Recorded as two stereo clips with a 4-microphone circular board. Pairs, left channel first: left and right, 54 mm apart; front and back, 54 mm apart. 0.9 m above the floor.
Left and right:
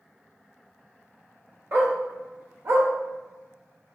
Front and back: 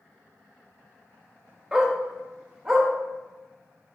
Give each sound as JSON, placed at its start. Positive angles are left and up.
{"t": 1.7, "sound": "a dog barking", "azimuth_deg": -105, "distance_m": 0.8}